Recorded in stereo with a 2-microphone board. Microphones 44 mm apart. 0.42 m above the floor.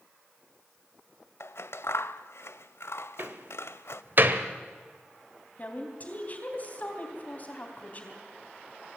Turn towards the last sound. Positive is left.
turn(degrees=35)  # may be behind; listen again after turning